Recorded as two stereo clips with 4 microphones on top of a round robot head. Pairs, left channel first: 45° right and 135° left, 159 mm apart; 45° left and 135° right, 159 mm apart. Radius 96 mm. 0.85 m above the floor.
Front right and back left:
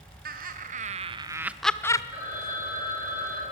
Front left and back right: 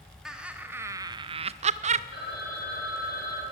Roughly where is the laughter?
Behind left.